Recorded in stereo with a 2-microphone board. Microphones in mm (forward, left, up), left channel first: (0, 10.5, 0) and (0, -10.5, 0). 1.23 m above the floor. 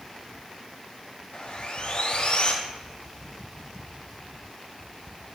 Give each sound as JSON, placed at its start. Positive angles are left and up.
{"t": 1.3, "sound": "sawing", "side_deg": 50, "distance_m": 1.2}